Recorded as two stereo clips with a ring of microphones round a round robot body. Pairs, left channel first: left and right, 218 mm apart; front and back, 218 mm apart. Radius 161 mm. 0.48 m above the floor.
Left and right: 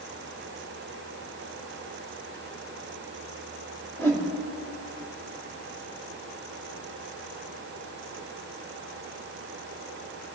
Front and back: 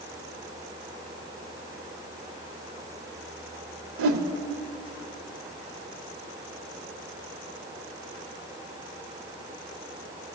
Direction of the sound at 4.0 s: 170° left.